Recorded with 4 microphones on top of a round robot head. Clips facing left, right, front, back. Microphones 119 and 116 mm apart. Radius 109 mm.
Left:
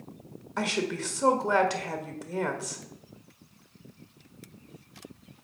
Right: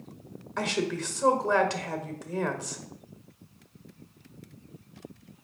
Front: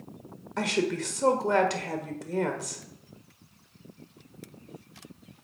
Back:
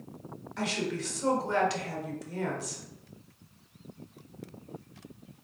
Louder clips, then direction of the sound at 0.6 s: Even, front 5 dB; 10° left.